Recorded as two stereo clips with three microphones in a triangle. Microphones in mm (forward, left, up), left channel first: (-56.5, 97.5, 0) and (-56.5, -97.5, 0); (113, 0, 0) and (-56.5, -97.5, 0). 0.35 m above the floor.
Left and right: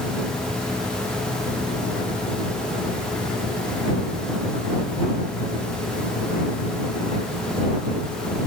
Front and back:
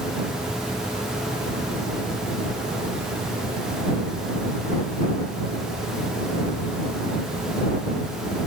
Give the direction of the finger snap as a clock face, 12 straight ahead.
I don't hear a finger snap.